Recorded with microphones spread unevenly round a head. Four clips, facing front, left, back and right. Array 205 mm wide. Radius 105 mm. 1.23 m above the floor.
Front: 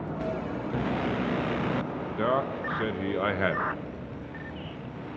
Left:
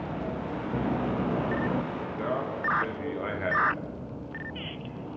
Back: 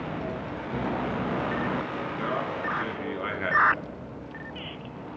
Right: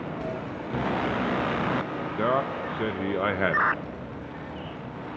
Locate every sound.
2.2 s a man speaking: 75° right, 0.8 m